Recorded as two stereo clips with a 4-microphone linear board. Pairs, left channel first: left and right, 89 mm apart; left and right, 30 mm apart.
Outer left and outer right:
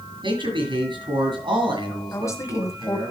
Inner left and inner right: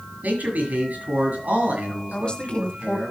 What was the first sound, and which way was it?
A man speaking, 65° right (ahead or behind).